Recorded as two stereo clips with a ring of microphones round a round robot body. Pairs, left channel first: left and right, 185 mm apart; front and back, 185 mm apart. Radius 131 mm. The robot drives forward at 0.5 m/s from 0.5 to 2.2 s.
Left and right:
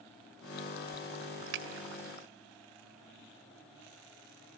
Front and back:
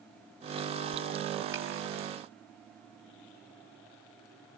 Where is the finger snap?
100° right, 2.5 m; by 1.7 s 105° right, 2.5 m.